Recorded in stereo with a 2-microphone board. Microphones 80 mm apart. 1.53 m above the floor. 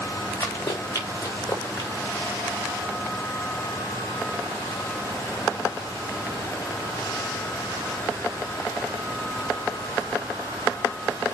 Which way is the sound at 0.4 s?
35° left (ahead or behind).